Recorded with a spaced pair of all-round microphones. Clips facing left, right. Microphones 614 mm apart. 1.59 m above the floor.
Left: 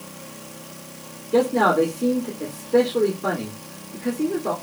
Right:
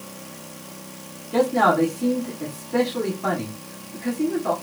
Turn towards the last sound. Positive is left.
turn(degrees=-10)  # may be behind; listen again after turning